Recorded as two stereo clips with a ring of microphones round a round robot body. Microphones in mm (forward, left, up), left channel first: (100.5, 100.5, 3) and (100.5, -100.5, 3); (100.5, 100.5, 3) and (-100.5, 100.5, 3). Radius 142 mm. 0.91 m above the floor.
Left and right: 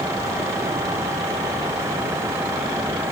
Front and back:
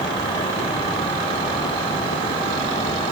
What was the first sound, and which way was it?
Only background noise.